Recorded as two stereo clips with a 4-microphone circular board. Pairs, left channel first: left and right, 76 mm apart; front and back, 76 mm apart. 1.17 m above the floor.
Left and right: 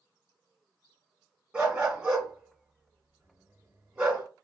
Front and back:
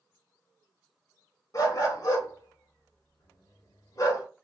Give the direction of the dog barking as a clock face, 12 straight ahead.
1 o'clock.